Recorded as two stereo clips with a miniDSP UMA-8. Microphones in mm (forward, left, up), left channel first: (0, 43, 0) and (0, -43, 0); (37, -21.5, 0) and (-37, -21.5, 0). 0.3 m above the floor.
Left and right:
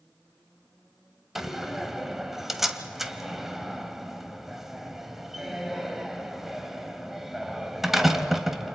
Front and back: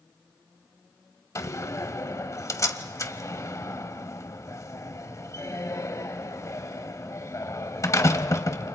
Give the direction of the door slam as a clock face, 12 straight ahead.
12 o'clock.